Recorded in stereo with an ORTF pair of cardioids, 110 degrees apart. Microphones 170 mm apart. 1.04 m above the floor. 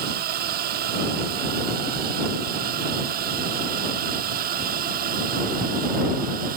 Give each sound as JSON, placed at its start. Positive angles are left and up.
{"t": 0.0, "sound": "a drone", "azimuth_deg": -65}